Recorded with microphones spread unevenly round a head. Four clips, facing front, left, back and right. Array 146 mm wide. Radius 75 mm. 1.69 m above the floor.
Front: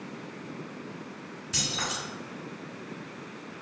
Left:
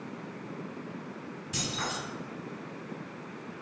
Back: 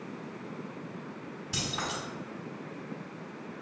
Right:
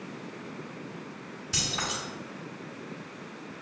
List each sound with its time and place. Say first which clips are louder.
1.5 s keys jangling: right 1 dB, front 1 dB; 150° right, 1.9 m